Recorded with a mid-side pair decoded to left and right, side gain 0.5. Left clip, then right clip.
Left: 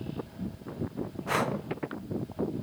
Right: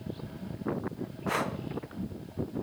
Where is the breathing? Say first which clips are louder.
Left 2 dB; 10° left, 0.5 m.